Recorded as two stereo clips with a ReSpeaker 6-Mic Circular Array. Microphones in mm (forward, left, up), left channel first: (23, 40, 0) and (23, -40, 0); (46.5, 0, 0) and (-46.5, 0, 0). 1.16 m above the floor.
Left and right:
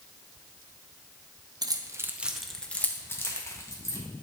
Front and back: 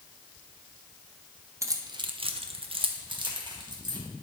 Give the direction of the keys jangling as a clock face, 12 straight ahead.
4 o'clock.